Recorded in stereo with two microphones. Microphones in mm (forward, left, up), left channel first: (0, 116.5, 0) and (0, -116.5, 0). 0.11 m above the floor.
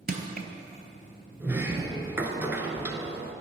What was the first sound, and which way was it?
Crushing, 40° right (ahead or behind).